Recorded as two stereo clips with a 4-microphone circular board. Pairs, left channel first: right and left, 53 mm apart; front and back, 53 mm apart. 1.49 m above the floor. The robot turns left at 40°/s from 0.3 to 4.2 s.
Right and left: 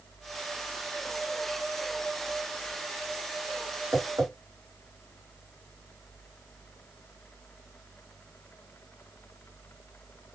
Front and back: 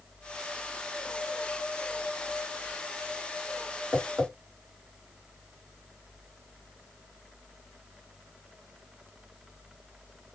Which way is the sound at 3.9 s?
115° left.